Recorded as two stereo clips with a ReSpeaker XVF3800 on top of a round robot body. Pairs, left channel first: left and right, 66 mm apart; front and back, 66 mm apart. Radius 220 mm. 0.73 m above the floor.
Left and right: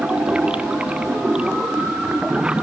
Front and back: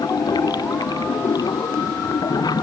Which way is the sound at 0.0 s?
15° right.